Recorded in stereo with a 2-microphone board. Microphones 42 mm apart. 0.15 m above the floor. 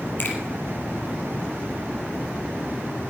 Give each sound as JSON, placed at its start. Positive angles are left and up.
{"t": 0.2, "sound": "a finger snap", "side_deg": 50, "distance_m": 4.5}